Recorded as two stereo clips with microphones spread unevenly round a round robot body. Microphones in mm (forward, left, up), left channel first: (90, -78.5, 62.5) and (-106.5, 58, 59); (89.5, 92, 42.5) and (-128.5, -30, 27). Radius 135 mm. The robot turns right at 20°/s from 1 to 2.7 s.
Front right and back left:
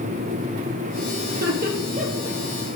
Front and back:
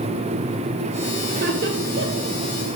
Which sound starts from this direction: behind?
Laughter, at 1.3 s.